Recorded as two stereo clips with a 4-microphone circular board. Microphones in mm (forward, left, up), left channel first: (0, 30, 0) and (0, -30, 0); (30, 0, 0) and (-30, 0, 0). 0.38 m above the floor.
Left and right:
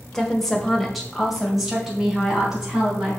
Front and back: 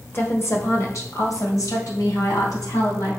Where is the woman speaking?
15° left, 1.2 m; by 3.1 s 10° right, 3.5 m.